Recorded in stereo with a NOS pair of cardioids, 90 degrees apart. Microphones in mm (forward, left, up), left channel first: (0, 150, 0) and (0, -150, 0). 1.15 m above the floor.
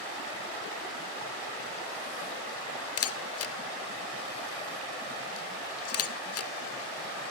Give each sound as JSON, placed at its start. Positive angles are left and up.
{"t": 3.0, "sound": "a camera shutter", "azimuth_deg": 55, "distance_m": 1.9}